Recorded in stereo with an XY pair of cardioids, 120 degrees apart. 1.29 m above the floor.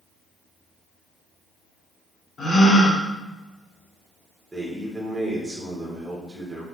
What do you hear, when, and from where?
2.4 s a gasp: 25° left, 1.1 m
4.5 s a man speaking: 15° right, 1.9 m